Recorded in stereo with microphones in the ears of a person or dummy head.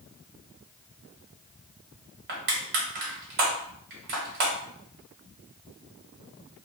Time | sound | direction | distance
2.3 | crushing | 55° right (ahead or behind) | 1.1 m